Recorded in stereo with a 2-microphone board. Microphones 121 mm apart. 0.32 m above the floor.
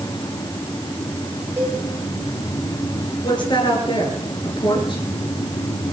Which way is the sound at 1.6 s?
20° right (ahead or behind).